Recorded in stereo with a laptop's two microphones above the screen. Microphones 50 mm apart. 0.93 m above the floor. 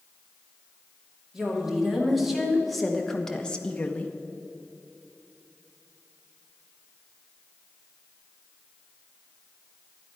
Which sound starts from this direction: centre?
A woman speaking, at 1.3 s.